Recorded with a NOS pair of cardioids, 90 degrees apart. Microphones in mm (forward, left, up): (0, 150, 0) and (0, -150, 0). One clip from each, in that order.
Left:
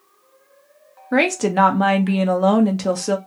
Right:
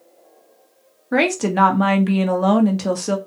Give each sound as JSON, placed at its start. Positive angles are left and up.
{"t": 1.1, "sound": "a woman speaking", "azimuth_deg": 5, "distance_m": 0.6}